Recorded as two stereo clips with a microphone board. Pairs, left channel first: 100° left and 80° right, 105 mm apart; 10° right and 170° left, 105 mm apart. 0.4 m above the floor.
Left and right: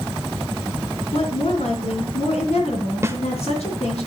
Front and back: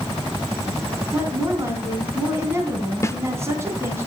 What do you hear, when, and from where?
1.1 s a woman speaking: 105° left, 3.5 m
3.0 s a snare drum: 45° right, 0.8 m